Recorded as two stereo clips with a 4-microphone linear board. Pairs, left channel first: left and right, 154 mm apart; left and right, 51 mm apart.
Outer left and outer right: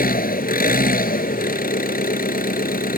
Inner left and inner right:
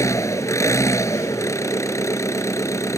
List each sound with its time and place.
0.0 s an engine running: 75° left (ahead or behind)